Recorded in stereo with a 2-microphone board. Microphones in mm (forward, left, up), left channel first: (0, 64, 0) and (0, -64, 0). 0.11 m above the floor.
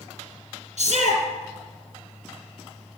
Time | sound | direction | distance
0.8 | a shout | 60° right (ahead or behind) | 3.5 m